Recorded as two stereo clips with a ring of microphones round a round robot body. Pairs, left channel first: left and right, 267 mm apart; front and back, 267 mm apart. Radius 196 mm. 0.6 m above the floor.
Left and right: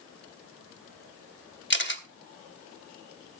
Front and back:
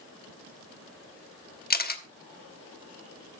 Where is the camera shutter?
50° left, 1.2 m.